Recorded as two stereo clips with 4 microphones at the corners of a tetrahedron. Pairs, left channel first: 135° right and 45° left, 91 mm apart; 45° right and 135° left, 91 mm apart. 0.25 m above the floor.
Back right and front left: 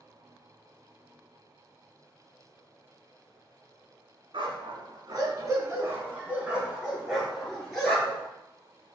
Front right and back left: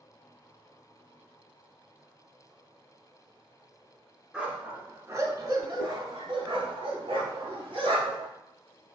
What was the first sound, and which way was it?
A dog barking, 55° left.